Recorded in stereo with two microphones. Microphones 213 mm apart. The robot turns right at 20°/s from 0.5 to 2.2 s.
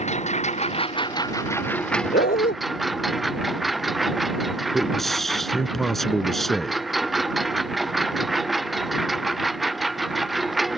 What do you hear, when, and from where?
0.0 s a lawn mower: 145° left; by 10.8 s straight behind
2.1 s a dog barking: 50° left (ahead or behind)
4.7 s a man speaking: centre (ahead or behind)